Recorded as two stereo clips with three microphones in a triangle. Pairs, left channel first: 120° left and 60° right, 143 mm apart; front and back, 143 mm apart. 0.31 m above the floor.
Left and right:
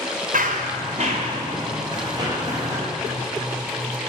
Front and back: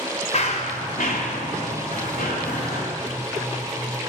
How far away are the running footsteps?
About 2 m.